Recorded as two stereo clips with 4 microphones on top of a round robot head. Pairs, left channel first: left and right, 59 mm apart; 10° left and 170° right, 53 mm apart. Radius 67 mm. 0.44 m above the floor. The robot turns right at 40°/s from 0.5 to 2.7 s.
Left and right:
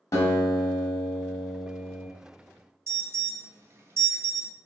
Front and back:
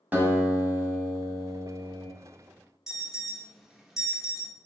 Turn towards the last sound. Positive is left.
turn(degrees=-95)